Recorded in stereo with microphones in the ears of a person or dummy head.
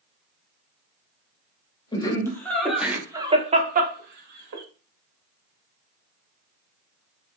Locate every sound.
1.9 s laughter: 15° left (ahead or behind), 1.2 m; by 4.6 s 65° right (ahead or behind), 1.0 m